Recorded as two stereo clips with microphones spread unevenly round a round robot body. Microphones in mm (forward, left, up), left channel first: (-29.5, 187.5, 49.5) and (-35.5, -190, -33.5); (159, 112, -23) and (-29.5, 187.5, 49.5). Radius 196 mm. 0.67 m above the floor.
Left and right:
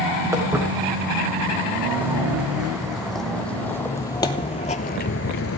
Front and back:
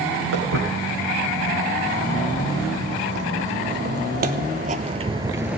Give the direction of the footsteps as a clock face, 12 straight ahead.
6 o'clock.